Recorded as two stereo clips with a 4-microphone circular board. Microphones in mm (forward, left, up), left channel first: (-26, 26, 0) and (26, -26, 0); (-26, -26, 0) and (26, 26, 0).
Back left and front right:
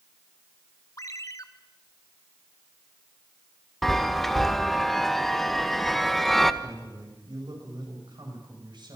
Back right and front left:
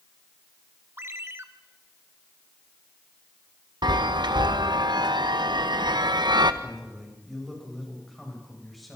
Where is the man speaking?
45° right, 8.5 m.